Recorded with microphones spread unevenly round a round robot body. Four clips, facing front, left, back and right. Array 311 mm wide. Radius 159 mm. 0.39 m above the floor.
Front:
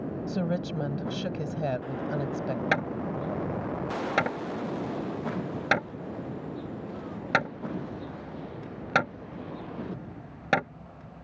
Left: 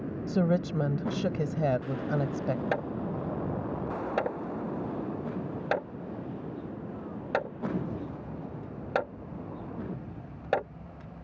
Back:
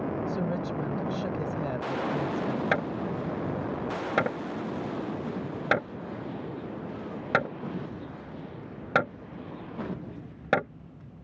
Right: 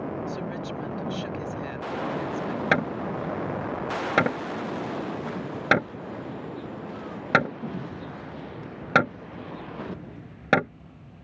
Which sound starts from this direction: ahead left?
A woman speaking, at 0.3 s.